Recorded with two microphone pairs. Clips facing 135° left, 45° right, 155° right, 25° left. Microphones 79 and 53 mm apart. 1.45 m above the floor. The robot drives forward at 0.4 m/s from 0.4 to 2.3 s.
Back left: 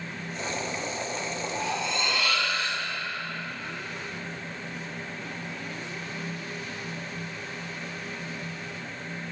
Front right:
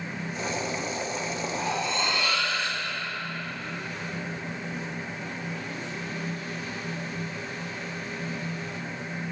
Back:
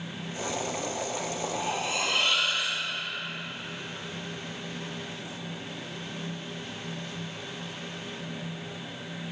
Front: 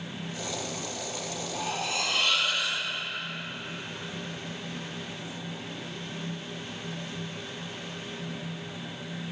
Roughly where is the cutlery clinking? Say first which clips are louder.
Front right 1 dB, even; right.